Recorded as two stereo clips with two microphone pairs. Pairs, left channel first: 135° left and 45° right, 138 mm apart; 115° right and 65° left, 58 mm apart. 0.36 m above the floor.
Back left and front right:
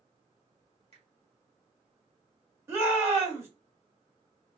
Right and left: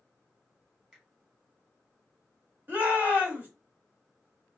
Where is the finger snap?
5° right, 2.5 m.